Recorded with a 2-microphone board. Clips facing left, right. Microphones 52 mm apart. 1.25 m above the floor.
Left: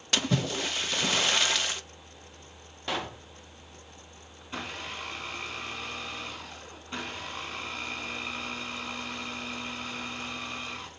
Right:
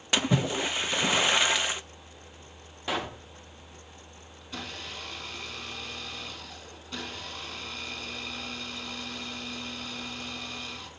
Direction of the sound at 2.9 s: 5° right (ahead or behind).